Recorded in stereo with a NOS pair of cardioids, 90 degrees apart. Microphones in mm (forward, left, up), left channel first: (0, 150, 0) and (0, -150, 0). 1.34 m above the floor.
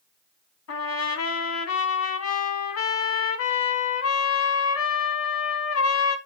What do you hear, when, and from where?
0.7 s a trumpet: 55° left, 1.7 m